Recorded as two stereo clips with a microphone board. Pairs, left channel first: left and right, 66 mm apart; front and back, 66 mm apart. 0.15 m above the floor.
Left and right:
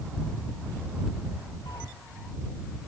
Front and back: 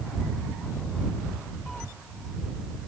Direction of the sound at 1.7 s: 80° left.